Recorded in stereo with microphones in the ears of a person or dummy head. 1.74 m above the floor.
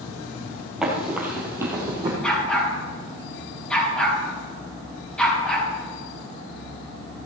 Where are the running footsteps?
5° right (ahead or behind), 2.5 m; by 2.1 s 20° right (ahead or behind), 3 m.